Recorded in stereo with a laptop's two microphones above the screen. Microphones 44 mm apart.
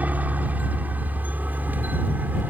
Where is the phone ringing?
I don't hear a phone ringing.